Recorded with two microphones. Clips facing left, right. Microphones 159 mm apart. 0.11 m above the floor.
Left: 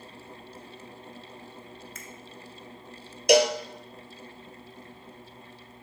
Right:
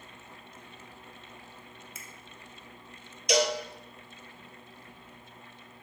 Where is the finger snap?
10° right (ahead or behind), 1.4 m.